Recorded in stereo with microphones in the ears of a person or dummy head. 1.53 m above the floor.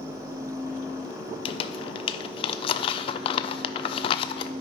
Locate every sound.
1.4 s crumpling: 35° left (ahead or behind), 0.6 m